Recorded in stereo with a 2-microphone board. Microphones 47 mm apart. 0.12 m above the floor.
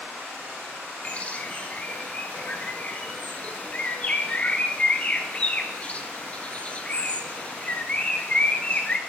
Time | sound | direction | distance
1.0 | a bird | 30° left (ahead or behind) | 1.1 m